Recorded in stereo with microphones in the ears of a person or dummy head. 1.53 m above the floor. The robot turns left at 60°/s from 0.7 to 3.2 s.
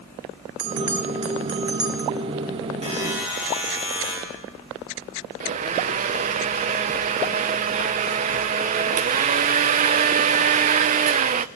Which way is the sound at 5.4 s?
35° right (ahead or behind).